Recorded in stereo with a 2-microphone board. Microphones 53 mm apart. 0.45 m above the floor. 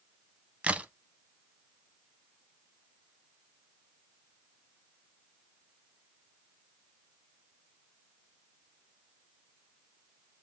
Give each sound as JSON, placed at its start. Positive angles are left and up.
{"t": 0.6, "sound": "a crack", "side_deg": -25, "distance_m": 0.7}